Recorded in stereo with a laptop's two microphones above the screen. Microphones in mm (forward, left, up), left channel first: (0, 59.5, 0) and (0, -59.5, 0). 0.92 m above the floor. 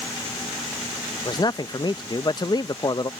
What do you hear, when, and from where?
1.2 s a man speaking: 40° left (ahead or behind)